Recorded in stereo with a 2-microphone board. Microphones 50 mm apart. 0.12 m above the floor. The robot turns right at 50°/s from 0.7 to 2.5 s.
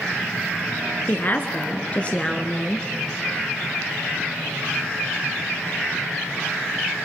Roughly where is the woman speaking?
Left.